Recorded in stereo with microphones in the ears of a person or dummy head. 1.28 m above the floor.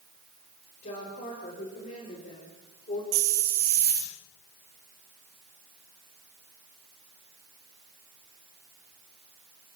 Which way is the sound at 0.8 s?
45° left (ahead or behind).